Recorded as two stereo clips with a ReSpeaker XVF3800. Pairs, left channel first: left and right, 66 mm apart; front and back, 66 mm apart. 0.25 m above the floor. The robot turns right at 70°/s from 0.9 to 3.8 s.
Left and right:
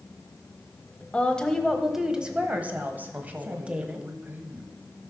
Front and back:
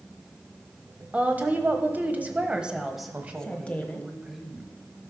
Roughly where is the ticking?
No ticking in this recording.